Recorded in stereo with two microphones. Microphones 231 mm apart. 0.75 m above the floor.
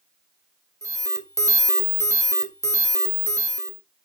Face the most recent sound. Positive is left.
turn(degrees=-15)  # may be behind; listen again after turning